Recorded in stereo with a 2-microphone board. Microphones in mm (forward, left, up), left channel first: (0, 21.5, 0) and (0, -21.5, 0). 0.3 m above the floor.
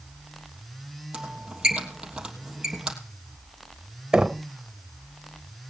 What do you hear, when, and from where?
1.1 s a squeak: 15° right (ahead or behind), 3 m
4.1 s knocking: 15° right (ahead or behind), 0.8 m